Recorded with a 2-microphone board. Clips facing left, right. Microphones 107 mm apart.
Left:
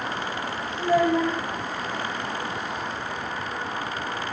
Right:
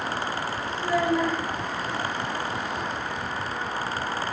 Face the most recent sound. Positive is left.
turn(degrees=40)  # may be behind; listen again after turning